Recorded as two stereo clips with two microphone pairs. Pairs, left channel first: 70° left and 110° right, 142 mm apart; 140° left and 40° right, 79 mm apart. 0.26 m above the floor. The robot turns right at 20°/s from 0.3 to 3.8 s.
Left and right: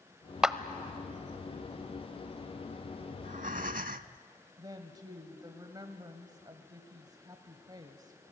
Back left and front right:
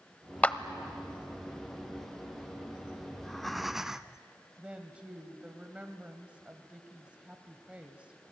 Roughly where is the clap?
Behind.